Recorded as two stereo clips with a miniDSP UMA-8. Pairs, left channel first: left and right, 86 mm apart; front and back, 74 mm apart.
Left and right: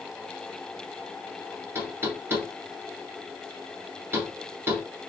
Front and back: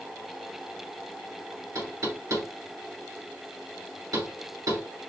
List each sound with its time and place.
1.8 s knocking: 150° right, 2 m